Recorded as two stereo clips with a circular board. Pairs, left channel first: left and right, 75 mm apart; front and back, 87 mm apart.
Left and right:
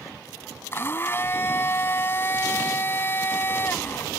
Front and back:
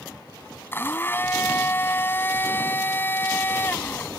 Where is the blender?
50° left.